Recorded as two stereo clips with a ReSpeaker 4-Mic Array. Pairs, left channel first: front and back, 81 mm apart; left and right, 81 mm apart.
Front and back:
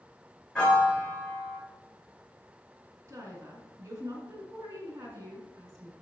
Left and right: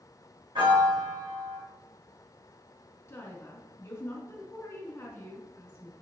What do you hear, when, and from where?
0.6 s a piano: 80° right, 2.5 m
3.1 s a woman speaking: 140° left, 2 m